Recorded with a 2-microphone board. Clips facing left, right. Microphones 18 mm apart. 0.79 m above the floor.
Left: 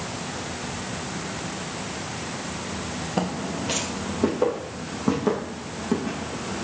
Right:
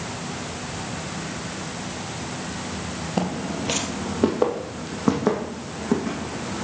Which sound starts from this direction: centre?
Footsteps, at 3.2 s.